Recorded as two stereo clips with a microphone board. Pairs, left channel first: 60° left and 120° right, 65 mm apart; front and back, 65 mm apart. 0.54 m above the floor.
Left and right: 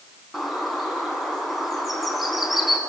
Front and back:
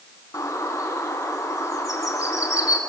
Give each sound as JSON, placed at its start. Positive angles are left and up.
{"t": 0.3, "sound": "a bird", "azimuth_deg": -30, "distance_m": 4.0}